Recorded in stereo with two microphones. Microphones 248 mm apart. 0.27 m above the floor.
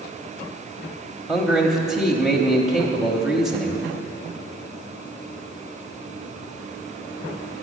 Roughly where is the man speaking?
Centre.